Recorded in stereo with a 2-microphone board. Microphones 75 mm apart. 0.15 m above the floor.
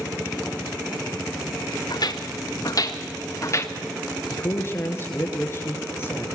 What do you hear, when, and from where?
1.9 s footsteps: 60° left (ahead or behind), 2.5 m; by 3.7 s 35° left (ahead or behind), 1.8 m
4.3 s a man speaking: 30° left (ahead or behind), 3 m